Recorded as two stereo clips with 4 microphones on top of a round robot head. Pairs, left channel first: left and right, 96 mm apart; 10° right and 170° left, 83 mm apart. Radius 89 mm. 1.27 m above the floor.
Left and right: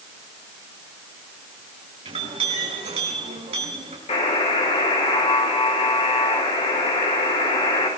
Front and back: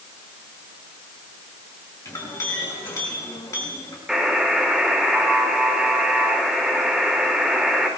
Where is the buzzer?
85° left, 4.5 m.